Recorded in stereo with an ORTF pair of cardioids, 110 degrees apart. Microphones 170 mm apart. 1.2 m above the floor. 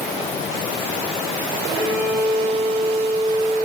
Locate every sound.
1.7 s a violin: 55° left, 3.5 m